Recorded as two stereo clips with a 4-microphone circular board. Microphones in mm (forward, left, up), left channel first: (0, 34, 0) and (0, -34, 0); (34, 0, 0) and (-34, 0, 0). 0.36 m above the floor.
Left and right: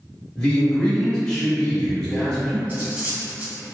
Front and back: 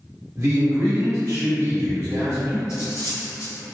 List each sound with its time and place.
0.4 s a man speaking: 160° left, 1.1 m
2.7 s cutlery clinking: 30° right, 1.3 m